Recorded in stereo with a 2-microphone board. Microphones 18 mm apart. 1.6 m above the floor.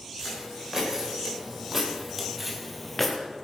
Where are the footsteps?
25° right (ahead or behind), 4 m; by 3.2 s 10° left (ahead or behind), 1.6 m.